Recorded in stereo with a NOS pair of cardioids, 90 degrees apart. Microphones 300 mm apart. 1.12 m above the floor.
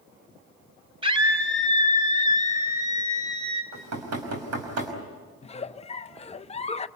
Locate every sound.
1.0 s a scream: 20° right, 4.5 m; by 3.6 s 10° right, 6 m
3.7 s knocking: 65° right, 5 m
5.4 s a giggle: 25° left, 0.7 m